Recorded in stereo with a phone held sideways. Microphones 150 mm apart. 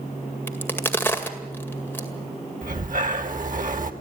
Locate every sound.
0.5 s a crack: 15° left (ahead or behind), 2.0 m
2.6 s breathing: 65° right (ahead or behind), 1.5 m